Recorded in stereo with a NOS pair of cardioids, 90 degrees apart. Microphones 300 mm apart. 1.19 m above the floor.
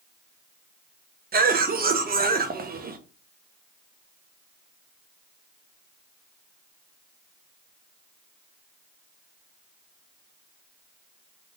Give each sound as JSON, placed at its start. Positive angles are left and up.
{"t": 1.3, "sound": "a cough", "azimuth_deg": -30, "distance_m": 1.0}